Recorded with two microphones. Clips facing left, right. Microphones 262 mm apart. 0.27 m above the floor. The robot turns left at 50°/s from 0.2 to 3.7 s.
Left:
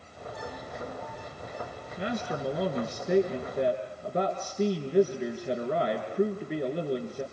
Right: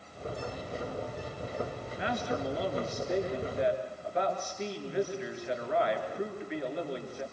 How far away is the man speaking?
About 4 m.